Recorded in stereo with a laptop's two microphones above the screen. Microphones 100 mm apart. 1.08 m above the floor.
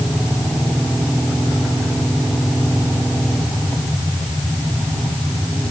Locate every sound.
Only background noise.